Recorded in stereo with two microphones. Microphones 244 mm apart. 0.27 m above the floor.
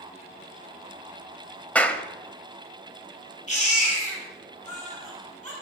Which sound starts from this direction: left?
A baby crying, at 3.5 s.